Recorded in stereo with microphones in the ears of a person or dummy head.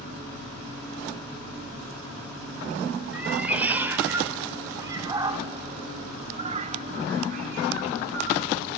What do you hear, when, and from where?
3.1 s a cat meowing: 10° right (ahead or behind), 2.5 m; by 8.5 s 45° right (ahead or behind), 1.6 m